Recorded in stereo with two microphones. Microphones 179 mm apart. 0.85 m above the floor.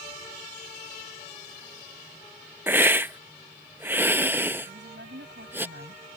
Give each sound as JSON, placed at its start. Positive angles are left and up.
{"t": 2.7, "sound": "a hiss", "side_deg": -10}
{"t": 4.7, "sound": "a woman speaking", "side_deg": -80}